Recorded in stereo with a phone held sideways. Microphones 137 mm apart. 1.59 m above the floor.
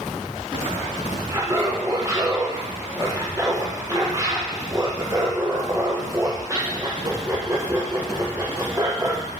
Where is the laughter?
20° right (ahead or behind), 0.8 m.